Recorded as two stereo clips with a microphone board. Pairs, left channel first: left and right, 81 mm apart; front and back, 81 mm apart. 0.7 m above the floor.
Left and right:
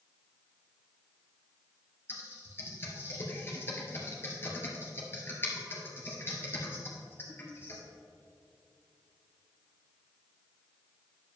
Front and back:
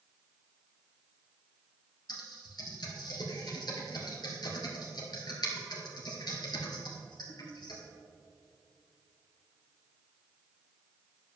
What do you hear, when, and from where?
2.1 s typing on a keyboard: 30° left, 2 m